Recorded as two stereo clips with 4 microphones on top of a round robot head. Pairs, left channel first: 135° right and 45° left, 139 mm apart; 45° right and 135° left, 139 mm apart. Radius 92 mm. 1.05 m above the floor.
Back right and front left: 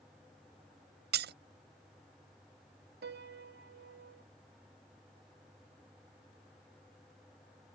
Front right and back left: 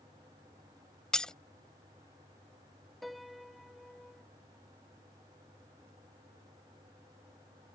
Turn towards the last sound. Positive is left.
turn(degrees=45)